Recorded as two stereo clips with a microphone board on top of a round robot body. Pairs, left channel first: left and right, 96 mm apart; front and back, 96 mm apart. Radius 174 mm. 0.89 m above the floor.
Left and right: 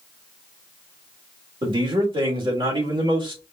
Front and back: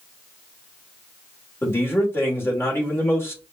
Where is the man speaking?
65° right, 2.5 m.